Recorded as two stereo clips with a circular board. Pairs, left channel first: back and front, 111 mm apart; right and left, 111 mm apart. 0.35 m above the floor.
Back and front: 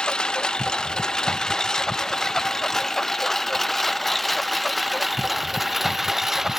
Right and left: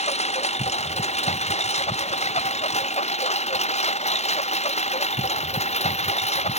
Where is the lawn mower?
95° right; by 6.6 s 85° right.